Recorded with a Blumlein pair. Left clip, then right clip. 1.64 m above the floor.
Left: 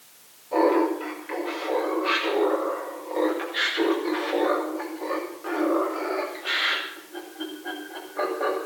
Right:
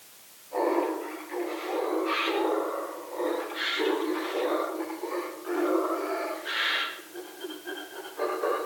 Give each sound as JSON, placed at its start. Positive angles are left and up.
{"t": 0.5, "sound": "laughter", "azimuth_deg": 35, "distance_m": 6.0}